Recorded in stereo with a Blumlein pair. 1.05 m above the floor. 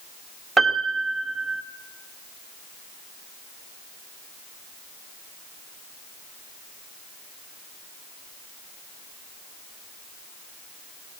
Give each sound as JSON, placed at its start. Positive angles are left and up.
{"t": 0.6, "sound": "a piano", "azimuth_deg": -10, "distance_m": 2.5}